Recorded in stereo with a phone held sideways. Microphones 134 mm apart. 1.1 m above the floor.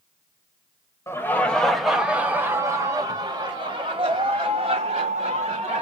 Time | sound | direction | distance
1.1 | laughter | 20° left (ahead or behind) | 1.1 m